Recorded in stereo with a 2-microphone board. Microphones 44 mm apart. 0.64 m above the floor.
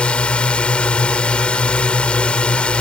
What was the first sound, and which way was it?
A drone, 25° left (ahead or behind).